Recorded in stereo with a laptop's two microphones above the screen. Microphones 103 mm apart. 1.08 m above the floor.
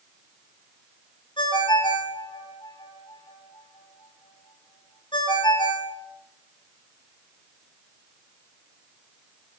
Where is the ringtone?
50° left (ahead or behind), 1.2 m.